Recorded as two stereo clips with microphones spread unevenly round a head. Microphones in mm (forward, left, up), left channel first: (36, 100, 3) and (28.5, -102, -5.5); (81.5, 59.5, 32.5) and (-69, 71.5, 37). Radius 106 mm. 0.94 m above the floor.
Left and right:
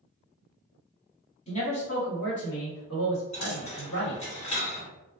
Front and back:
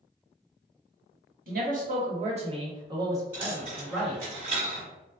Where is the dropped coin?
140° left, 1.5 m.